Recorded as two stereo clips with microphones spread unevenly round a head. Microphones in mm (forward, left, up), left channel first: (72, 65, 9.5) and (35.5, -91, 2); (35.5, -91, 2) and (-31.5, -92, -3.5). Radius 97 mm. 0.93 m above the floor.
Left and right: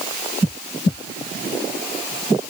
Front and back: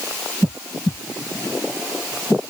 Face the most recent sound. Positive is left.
No sound to turn to.